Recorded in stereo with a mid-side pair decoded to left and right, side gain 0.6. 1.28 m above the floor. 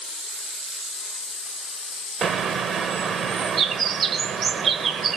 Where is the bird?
40° right, 0.9 m.